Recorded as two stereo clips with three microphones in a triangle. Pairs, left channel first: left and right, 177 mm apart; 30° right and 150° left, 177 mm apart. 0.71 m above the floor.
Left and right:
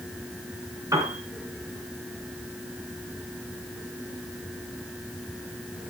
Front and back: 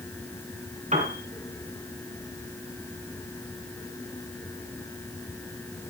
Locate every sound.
0.9 s a piano: 160° right, 4 m